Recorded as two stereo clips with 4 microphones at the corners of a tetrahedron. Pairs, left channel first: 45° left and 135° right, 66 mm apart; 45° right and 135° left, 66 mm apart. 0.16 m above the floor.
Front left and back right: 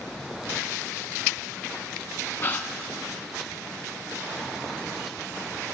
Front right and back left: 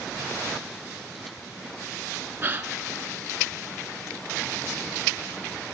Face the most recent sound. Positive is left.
turn(degrees=90)